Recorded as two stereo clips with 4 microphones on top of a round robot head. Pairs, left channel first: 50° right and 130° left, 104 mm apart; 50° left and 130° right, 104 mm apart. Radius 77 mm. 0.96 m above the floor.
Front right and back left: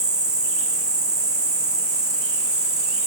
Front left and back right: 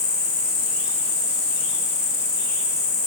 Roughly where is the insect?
Left.